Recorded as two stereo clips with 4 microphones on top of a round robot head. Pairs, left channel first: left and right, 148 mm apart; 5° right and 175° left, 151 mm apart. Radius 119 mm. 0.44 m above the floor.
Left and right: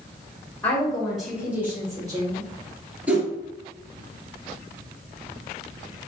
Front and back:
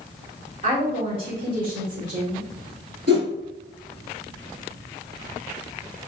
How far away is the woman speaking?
About 1.7 m.